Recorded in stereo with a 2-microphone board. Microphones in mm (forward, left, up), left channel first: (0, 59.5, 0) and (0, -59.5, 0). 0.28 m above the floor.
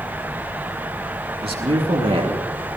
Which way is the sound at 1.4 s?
50° right (ahead or behind).